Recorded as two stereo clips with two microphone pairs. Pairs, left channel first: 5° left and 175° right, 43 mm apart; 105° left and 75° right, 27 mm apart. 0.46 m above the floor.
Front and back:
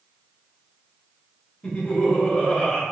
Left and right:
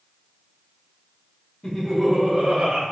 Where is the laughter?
55° left, 1.2 m; by 2.8 s 45° right, 1.4 m.